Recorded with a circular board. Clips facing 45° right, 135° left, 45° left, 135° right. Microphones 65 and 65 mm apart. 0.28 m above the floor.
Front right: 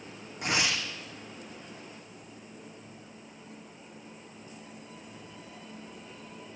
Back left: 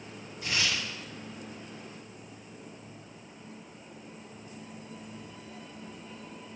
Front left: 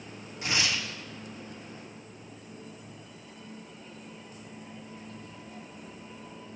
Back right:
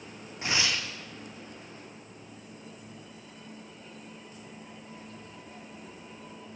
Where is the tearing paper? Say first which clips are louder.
Front right 2 dB, even; 70° right, 2.5 m.